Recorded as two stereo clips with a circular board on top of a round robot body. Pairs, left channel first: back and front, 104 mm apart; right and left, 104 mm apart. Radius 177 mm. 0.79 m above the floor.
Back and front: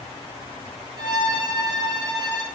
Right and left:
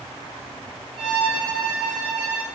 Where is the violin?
50° left, 2.5 m.